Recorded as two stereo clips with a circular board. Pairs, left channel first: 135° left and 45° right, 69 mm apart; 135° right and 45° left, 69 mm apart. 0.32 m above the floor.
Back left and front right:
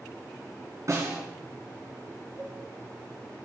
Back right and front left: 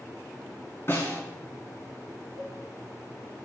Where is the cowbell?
165° right, 3 m.